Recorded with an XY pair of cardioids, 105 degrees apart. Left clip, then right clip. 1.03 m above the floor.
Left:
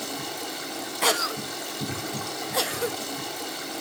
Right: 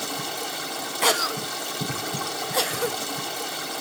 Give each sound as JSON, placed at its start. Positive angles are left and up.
{"t": 0.0, "sound": "running water", "azimuth_deg": -25, "distance_m": 3.5}
{"t": 1.0, "sound": "a cough", "azimuth_deg": -10, "distance_m": 0.5}